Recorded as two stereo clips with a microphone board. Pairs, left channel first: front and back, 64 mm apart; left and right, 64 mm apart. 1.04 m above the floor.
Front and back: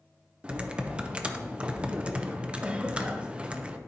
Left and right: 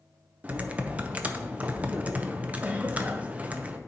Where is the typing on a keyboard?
125° right, 0.6 m.